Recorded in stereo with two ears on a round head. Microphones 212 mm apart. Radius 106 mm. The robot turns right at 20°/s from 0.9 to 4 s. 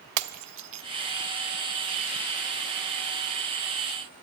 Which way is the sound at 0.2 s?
75° right (ahead or behind).